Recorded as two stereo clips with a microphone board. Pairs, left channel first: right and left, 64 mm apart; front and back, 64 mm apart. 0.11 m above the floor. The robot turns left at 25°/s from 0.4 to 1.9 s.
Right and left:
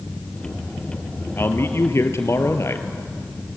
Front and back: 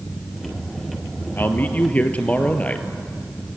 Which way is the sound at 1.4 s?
50° right.